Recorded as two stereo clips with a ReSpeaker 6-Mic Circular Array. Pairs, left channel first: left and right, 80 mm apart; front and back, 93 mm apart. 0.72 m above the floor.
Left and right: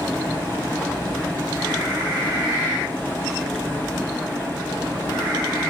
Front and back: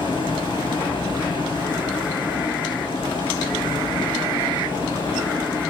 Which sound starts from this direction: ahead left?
Running water, at 0.0 s.